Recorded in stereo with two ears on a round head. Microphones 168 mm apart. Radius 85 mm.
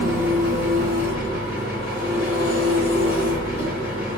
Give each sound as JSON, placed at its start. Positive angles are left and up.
{"t": 0.0, "sound": "an engine running", "side_deg": 50, "distance_m": 1.0}